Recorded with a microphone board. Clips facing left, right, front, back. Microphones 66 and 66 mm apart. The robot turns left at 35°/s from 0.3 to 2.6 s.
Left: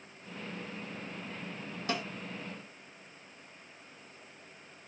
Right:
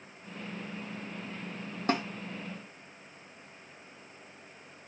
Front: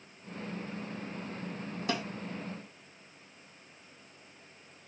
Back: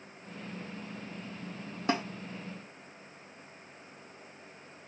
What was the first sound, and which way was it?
A snare drum, 125° right.